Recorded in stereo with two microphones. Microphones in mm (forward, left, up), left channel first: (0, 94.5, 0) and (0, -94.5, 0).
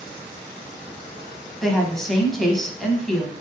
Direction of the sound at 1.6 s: Centre (ahead or behind).